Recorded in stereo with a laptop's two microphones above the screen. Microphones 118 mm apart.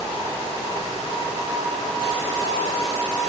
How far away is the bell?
No bell in this recording.